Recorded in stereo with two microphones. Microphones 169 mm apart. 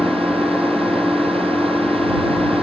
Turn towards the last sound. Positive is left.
turn(degrees=0)  # may be behind; listen again after turning